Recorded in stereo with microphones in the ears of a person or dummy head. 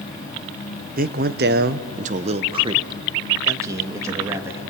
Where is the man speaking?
45° right (ahead or behind), 0.9 m; by 4.6 s 10° right (ahead or behind), 2.5 m.